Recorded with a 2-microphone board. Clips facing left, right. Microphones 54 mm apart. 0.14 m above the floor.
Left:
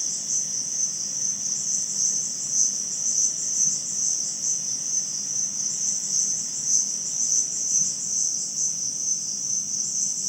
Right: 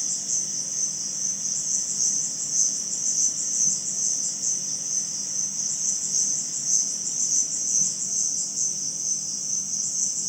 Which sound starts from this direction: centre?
An insect, at 0.0 s.